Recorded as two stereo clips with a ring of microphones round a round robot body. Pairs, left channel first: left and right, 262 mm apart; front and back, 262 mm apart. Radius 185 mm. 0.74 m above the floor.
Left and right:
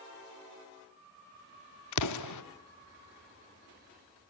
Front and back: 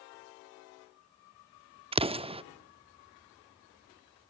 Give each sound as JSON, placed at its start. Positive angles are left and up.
{"t": 1.9, "sound": "an explosion", "azimuth_deg": 110, "distance_m": 0.6}